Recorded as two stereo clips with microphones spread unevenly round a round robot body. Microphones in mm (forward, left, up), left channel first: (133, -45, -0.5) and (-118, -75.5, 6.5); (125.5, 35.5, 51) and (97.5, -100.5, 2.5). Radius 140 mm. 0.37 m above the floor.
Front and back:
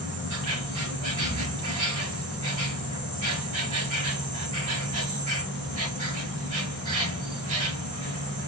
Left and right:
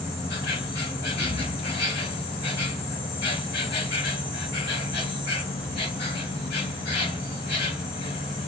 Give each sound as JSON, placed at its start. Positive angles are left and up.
{"t": 0.0, "sound": "an insect", "azimuth_deg": 120, "distance_m": 0.8}